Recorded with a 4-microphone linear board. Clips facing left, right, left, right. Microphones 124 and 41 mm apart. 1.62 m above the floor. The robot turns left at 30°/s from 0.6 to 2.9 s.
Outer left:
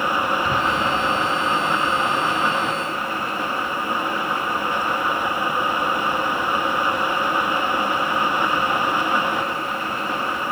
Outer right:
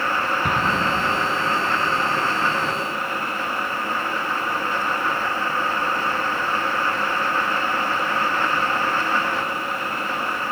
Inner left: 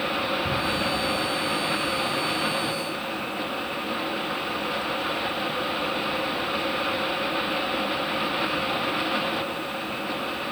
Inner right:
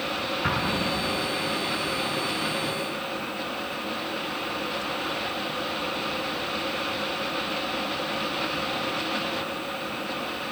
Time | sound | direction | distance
0.4 | an explosion | 55° right (ahead or behind) | 9 m